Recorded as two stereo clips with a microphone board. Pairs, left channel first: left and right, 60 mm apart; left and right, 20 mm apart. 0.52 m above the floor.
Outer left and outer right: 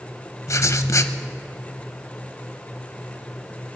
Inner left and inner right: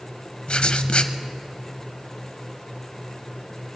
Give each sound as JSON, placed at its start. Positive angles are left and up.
{"t": 0.5, "sound": "writing", "side_deg": 55, "distance_m": 0.7}